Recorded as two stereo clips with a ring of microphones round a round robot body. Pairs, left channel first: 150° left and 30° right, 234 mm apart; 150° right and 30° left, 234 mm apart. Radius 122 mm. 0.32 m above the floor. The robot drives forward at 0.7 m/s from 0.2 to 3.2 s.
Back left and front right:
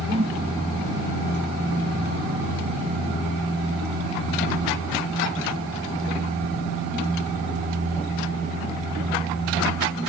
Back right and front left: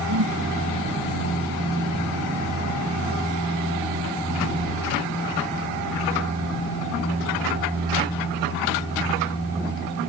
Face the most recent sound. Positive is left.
turn(degrees=45)